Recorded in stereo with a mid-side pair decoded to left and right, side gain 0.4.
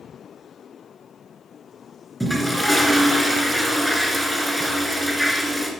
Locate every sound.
2.2 s a toilet flushing: 15° right, 2 m